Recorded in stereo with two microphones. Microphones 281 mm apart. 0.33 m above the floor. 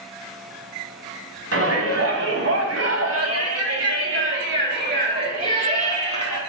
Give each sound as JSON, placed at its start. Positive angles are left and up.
{"t": 1.5, "sound": "a shout", "side_deg": -50, "distance_m": 3.0}